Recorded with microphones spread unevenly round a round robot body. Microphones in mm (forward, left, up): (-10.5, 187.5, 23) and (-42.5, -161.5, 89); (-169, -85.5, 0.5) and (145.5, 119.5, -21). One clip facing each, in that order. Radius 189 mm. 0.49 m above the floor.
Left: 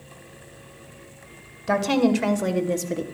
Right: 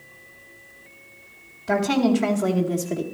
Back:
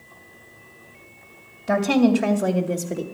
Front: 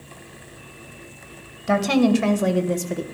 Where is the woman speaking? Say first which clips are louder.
Even, even; 90° left, 2.5 m; by 3.0 s 100° left, 1.7 m.